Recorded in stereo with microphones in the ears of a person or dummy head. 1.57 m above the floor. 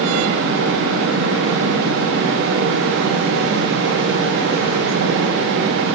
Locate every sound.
Only background noise.